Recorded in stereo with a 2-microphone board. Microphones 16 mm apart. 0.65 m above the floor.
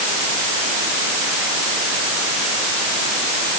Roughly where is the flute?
No flute in this recording.